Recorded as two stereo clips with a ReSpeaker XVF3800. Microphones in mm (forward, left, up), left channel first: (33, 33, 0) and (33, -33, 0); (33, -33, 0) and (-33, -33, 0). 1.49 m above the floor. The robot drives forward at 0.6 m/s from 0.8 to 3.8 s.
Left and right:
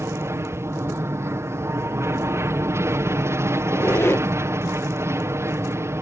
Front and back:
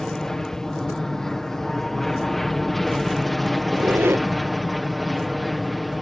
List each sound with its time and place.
0.0 s an aircraft: 80° right; by 6.0 s 90° right
3.6 s a squeak: 125° left; by 4.3 s 135° left